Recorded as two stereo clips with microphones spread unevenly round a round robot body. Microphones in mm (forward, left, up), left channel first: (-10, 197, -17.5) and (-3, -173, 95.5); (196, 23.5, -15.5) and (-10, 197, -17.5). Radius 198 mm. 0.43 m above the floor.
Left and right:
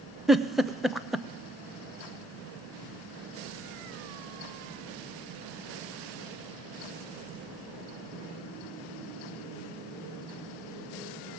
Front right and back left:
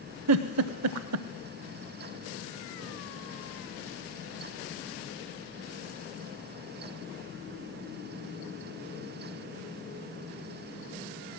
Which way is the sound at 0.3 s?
170° left.